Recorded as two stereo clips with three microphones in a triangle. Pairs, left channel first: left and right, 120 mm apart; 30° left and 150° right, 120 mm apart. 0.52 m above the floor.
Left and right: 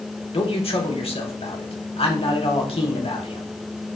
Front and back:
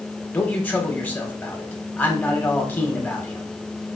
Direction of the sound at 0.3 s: 100° left.